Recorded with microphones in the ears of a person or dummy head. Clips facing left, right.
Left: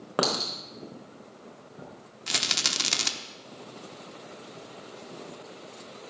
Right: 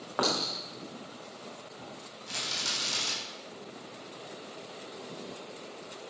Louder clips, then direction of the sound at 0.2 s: Left 3 dB; 40° left (ahead or behind).